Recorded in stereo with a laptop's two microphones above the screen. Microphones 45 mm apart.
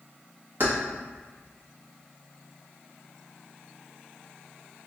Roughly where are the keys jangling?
Right.